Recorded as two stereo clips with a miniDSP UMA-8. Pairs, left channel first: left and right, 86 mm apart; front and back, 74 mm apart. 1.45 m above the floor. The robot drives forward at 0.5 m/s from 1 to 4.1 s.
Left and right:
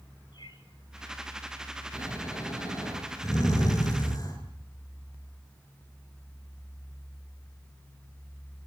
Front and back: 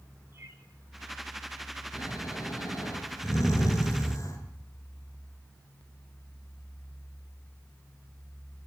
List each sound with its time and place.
0.3 s a bird: 120° left, 6.5 m
1.9 s snoring: 40° left, 6.5 m; by 4.4 s 45° left, 5.5 m